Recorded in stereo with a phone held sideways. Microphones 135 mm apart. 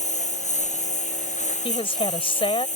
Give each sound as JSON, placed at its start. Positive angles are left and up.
{"t": 0.0, "sound": "a lawn mower", "side_deg": 60}
{"t": 1.6, "sound": "a woman speaking", "side_deg": 40}